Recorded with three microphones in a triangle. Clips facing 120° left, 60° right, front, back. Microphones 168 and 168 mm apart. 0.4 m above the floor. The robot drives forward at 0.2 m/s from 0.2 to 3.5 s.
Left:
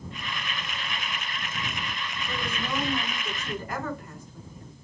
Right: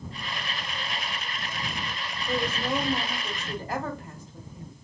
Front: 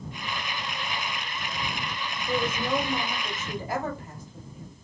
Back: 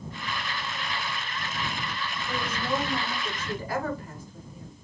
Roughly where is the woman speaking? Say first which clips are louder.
Right 5 dB, front 4 dB; ahead right.